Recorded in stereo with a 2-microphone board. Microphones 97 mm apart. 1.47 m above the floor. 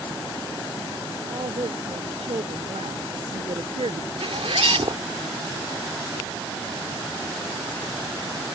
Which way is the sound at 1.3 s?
85° right.